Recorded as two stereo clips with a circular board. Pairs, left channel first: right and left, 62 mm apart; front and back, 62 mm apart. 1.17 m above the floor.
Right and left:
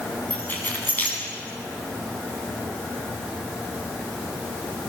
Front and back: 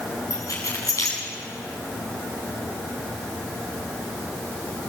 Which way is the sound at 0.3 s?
30° right.